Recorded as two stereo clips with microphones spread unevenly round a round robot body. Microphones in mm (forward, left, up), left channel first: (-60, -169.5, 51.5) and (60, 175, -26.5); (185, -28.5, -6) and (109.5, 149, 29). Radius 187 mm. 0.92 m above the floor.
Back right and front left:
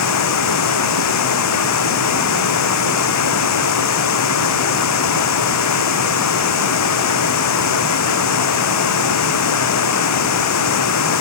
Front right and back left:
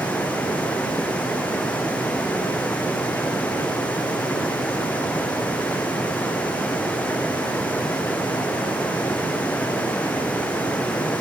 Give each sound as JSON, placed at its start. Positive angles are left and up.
{"t": 0.0, "sound": "running water", "azimuth_deg": -155}